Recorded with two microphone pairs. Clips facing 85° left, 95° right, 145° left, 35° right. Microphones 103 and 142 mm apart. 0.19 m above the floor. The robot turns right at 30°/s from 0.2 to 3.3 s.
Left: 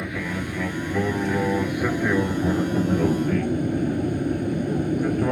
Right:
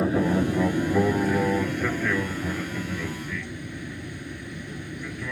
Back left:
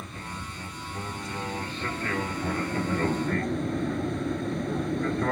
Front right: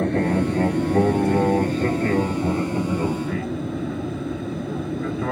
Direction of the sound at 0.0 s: 40° right.